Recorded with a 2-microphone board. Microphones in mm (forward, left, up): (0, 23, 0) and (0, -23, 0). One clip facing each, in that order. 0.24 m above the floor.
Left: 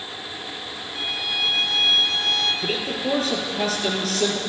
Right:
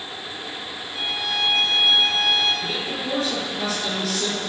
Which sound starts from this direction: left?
A man speaking, at 2.6 s.